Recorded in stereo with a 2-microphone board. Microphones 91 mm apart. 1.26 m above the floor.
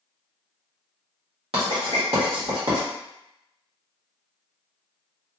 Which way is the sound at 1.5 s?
85° right.